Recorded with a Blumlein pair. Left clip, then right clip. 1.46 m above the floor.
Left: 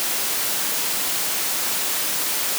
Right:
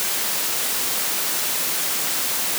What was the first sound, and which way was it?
Only background noise.